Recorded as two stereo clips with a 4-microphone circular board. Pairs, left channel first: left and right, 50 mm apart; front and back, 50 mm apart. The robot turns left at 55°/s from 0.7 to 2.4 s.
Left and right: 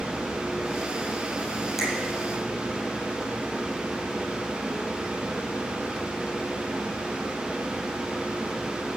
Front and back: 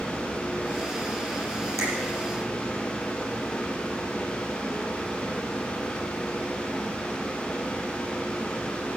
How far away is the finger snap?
About 6.5 m.